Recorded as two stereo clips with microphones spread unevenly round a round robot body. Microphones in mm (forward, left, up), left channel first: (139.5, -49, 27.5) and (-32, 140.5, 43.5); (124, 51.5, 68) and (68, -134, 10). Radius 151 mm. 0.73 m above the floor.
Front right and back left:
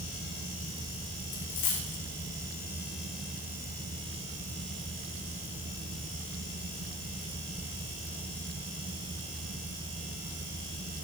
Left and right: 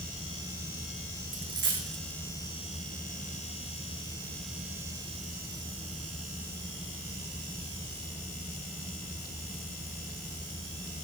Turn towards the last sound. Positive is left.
turn(degrees=-80)